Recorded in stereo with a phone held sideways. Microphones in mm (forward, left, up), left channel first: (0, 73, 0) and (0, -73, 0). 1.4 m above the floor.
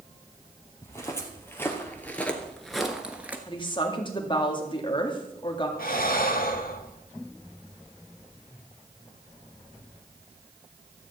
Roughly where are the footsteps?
Centre.